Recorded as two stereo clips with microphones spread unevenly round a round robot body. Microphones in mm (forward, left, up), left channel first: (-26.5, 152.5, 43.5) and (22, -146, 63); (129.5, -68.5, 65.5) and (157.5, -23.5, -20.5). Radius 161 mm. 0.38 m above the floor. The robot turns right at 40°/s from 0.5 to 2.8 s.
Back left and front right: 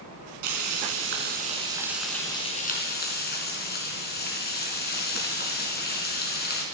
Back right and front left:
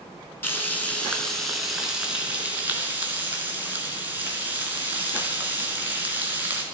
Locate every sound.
0.4 s frying: 50° right, 4 m; by 6.6 s 40° left, 4 m